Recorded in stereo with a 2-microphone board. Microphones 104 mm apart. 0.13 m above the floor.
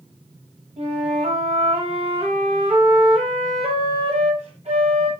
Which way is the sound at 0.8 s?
80° right.